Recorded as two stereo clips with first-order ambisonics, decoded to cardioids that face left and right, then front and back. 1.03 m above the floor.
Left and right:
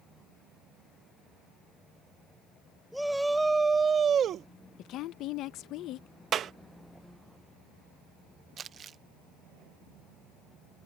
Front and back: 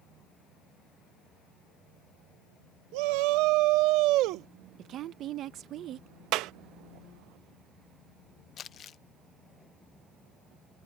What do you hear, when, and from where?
2.9 s a shout: straight behind; by 4.5 s 140° right
4.8 s a woman speaking: 130° left
6.3 s a clap: 145° right
8.6 s crumpling: 40° right